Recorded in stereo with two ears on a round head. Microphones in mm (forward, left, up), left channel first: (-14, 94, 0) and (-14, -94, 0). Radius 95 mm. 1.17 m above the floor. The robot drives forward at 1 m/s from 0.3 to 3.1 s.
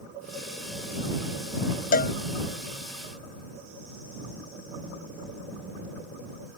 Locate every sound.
1.9 s a cowbell: 50° left (ahead or behind); by 2.1 s 45° left (ahead or behind)